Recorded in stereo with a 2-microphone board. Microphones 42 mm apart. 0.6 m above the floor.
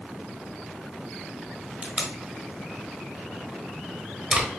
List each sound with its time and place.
1.8 s tape being pulled: 30° right (ahead or behind), 1.1 m